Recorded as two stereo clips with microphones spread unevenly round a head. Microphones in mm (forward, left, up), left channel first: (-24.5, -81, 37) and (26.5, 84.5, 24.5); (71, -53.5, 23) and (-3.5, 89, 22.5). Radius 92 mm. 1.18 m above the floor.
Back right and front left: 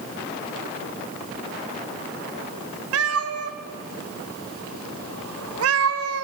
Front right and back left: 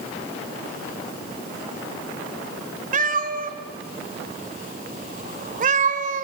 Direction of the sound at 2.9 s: 75° left.